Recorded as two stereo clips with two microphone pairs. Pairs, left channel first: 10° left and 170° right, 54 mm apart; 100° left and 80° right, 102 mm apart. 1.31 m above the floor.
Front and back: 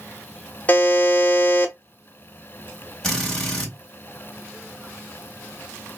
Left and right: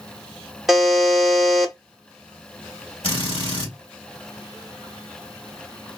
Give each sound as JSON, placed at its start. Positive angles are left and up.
{"t": 0.7, "sound": "a buzzer", "azimuth_deg": 10, "distance_m": 1.0}
{"t": 3.0, "sound": "a drill", "azimuth_deg": 90, "distance_m": 2.0}